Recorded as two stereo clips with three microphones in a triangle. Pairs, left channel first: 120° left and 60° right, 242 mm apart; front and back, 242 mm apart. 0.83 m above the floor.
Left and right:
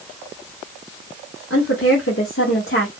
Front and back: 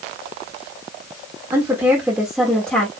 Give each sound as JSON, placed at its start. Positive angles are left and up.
{"t": 1.5, "sound": "a woman speaking", "azimuth_deg": 110, "distance_m": 1.7}